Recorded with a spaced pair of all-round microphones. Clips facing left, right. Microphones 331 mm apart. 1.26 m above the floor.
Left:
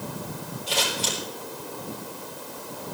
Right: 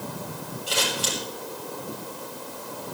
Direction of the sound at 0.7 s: 15° right (ahead or behind).